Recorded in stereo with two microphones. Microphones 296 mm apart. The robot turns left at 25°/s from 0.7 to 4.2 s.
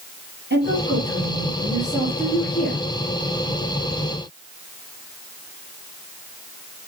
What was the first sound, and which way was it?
A woman speaking, 135° right.